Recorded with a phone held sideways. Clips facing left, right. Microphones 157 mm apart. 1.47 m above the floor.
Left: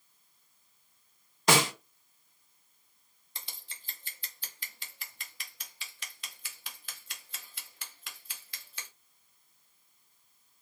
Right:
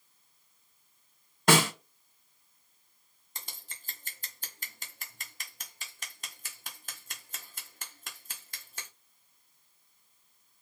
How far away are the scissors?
About 0.7 m.